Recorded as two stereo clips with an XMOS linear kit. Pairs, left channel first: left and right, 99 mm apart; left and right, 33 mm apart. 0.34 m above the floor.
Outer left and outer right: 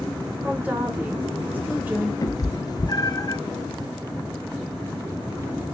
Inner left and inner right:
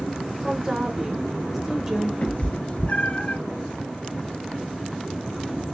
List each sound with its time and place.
0.4 s a woman speaking: 15° right (ahead or behind), 1.1 m
2.2 s a cat meowing: 40° left (ahead or behind), 0.8 m